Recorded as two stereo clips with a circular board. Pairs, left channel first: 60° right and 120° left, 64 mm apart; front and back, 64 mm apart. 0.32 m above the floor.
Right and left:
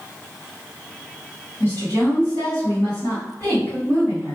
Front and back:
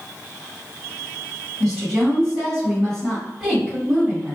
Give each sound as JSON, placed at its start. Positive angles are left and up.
{"t": 1.6, "sound": "a woman speaking", "azimuth_deg": -85, "distance_m": 1.8}